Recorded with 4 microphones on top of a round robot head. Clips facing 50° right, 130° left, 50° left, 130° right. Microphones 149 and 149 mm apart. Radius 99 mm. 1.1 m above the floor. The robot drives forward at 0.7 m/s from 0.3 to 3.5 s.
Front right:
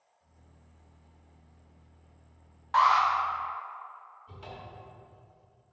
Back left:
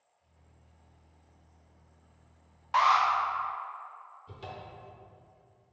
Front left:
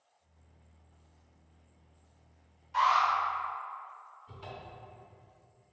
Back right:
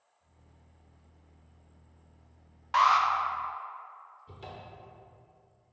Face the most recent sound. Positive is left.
turn(degrees=180)